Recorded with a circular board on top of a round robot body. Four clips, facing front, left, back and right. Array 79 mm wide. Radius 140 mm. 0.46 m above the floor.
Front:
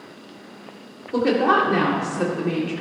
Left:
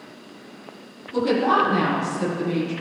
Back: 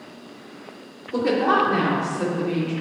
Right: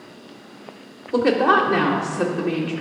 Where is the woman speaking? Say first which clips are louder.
Right 3 dB, front 2 dB; 80° right, 2.5 m; by 2.7 s 55° right, 2.5 m.